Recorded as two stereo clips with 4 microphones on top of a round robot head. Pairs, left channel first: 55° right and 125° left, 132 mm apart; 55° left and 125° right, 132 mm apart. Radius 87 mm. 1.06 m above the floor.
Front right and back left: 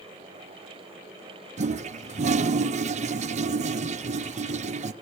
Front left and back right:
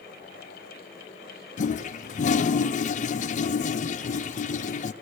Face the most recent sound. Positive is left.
turn(degrees=85)